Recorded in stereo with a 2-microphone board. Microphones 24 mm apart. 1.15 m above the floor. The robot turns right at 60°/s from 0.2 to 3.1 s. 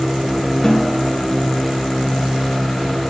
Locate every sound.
0.6 s a snare drum: 20° left (ahead or behind), 1.6 m; by 1.0 s 5° right (ahead or behind), 1.6 m